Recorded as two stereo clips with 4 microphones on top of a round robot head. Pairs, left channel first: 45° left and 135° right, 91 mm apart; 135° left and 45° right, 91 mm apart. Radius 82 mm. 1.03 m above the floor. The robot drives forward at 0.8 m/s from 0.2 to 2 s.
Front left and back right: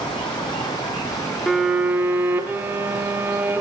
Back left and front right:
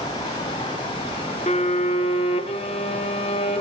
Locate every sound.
0.0 s running water: 85° left, 3.5 m; by 3.6 s 110° left, 3.5 m
1.5 s a violin: 130° left, 0.7 m; by 3.6 s 155° left, 1.0 m